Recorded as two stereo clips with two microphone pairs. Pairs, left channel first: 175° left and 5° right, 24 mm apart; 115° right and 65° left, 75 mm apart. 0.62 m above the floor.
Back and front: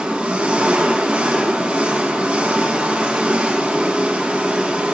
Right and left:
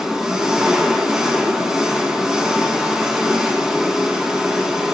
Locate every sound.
0.0 s an engine running: 20° right, 2.5 m